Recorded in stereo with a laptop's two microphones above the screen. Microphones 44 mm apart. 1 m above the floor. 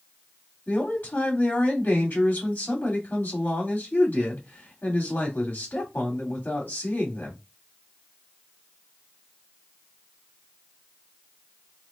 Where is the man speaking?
40° left (ahead or behind), 2 m.